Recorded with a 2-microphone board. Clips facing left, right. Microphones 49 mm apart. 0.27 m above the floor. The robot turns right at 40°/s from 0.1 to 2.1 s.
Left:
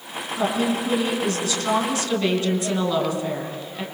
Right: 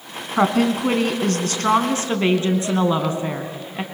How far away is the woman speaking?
About 2.5 m.